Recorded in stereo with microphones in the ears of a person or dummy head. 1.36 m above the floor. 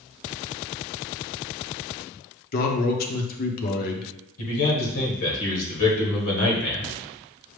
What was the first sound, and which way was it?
A man speaking, 50° left (ahead or behind).